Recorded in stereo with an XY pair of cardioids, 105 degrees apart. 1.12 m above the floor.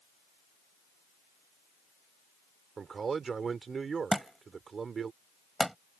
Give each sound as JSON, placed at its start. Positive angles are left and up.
{"t": 2.8, "sound": "a man speaking", "azimuth_deg": -40}
{"t": 4.1, "sound": "a thud", "azimuth_deg": 0}